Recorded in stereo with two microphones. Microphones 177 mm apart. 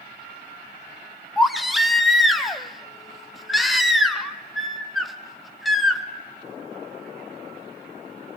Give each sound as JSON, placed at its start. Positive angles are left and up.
{"t": 1.4, "sound": "a baby crying", "side_deg": 0, "distance_m": 1.3}